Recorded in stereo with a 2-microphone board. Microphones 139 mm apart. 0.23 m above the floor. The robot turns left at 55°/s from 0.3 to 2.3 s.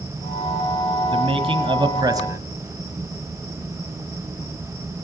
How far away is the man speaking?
About 1.3 m.